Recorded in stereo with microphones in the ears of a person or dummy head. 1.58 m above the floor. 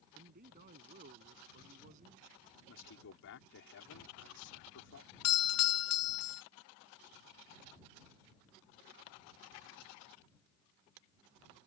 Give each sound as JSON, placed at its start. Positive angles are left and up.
{"t": 0.1, "sound": "a man speaking", "side_deg": -45}
{"t": 2.7, "sound": "a man speaking", "side_deg": 65}
{"t": 5.2, "sound": "a doorbell", "side_deg": 70}